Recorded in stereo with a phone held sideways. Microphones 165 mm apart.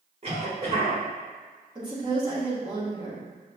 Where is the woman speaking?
25° right (ahead or behind), 1.6 m.